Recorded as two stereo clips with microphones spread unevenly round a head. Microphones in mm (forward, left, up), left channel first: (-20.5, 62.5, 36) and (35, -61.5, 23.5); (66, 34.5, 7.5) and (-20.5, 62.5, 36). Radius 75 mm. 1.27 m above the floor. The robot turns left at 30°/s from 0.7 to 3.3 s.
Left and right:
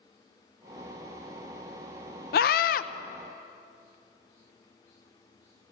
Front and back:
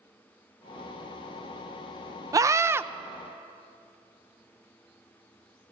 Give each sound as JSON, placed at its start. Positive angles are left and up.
{"t": 2.3, "sound": "a scream", "azimuth_deg": 110, "distance_m": 0.7}